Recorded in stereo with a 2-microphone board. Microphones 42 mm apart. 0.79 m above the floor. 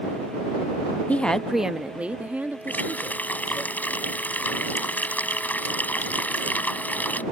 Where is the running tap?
45° left (ahead or behind).